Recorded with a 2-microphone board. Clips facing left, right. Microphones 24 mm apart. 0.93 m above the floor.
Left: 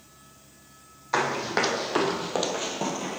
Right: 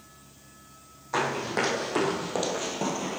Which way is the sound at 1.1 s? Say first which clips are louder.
Left 2 dB; 50° left (ahead or behind).